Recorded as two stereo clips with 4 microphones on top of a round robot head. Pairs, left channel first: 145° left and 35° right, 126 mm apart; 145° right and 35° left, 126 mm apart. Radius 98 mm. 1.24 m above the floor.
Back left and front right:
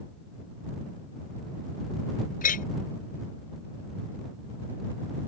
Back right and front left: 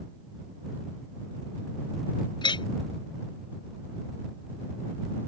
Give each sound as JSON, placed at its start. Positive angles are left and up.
{"t": 2.4, "sound": "a clink", "azimuth_deg": 160}